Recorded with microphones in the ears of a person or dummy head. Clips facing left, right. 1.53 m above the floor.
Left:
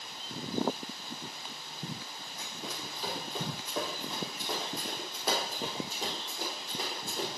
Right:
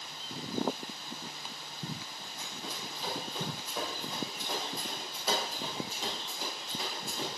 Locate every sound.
2.4 s running footsteps: 65° left (ahead or behind), 3.5 m; by 7.3 s 40° left (ahead or behind), 5.5 m